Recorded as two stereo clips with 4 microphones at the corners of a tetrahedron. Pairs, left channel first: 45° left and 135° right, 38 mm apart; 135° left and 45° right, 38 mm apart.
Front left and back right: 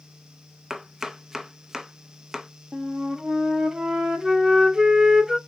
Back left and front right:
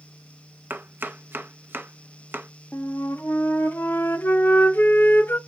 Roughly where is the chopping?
Ahead right.